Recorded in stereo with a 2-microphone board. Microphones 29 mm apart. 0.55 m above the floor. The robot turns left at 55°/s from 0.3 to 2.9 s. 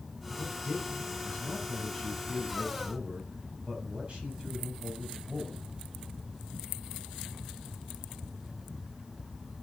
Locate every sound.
0.4 s a man speaking: 100° left, 3.5 m; by 5.7 s 40° right, 3.5 m